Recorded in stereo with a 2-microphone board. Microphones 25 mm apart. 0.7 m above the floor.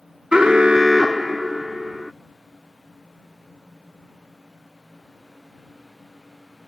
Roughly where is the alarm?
Right.